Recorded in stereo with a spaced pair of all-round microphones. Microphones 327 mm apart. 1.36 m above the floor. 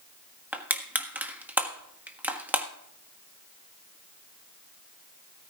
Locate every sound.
0.5 s crushing: 5° right (ahead or behind), 1.5 m